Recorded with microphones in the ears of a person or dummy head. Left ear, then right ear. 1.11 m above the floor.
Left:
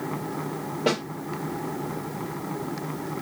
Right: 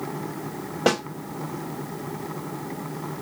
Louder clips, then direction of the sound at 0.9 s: Right 3 dB; 50° right (ahead or behind).